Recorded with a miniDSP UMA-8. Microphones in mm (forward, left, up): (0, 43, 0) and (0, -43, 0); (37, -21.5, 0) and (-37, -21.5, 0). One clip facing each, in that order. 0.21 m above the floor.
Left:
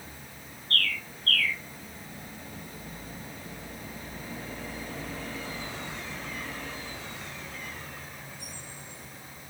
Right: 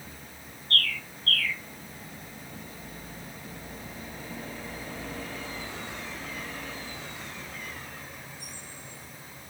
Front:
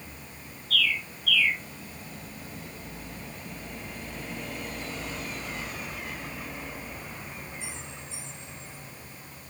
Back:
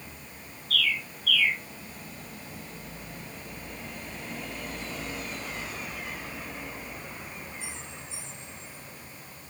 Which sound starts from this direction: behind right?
A bird, at 0.7 s.